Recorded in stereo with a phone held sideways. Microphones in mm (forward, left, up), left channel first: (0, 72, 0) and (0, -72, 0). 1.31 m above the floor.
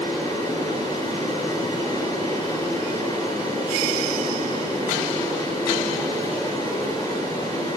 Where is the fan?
25° left (ahead or behind), 4 m.